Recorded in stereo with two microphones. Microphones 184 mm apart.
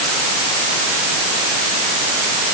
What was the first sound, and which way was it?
Only background noise.